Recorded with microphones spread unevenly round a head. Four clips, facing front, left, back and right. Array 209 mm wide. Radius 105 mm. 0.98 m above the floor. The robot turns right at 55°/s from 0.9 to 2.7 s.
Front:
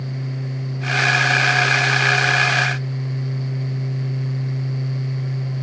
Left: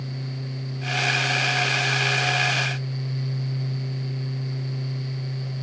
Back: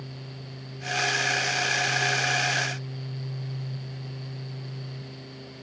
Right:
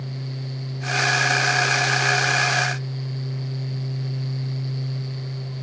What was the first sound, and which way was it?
Only background noise.